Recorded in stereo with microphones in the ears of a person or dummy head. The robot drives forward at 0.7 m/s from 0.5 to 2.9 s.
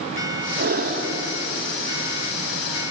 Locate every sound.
0.6 s breathing: 50° right (ahead or behind), 1.8 m; by 1.2 s 40° right (ahead or behind), 2 m